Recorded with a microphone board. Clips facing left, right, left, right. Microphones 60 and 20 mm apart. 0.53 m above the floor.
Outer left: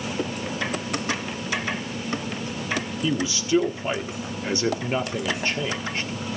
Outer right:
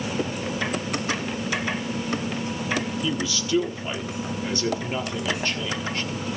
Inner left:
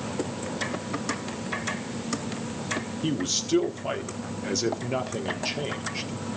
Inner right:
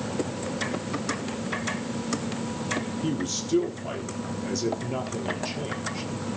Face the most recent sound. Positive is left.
turn(degrees=20)  # may be behind; listen again after turning